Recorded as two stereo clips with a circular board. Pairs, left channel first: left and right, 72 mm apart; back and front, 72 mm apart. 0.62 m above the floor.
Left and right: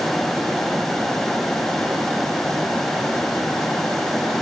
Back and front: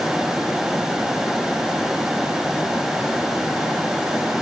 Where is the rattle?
I don't hear a rattle.